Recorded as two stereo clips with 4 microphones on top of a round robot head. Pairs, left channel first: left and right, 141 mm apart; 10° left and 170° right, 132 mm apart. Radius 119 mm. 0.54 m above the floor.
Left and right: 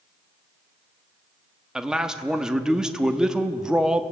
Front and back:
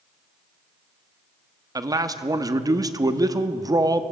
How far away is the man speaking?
About 1.1 m.